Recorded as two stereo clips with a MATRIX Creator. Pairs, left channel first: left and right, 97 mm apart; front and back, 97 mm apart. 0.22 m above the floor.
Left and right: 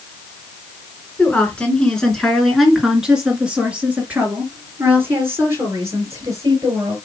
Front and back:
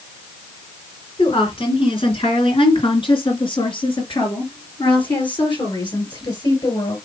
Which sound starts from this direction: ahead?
A woman speaking, at 1.2 s.